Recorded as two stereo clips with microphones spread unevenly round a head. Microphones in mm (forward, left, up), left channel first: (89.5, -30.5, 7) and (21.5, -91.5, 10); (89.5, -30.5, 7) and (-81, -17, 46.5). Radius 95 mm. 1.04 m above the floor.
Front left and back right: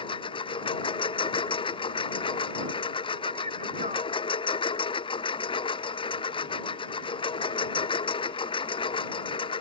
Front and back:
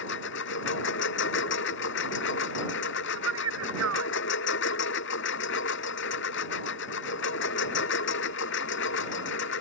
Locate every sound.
0.0 s a lawn mower: 20° left
3.1 s a man speaking: 165° left